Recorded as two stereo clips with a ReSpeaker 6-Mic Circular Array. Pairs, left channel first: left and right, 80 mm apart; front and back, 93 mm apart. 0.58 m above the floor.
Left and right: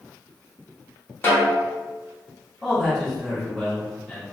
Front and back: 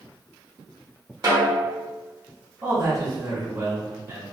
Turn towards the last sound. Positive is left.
turn(degrees=165)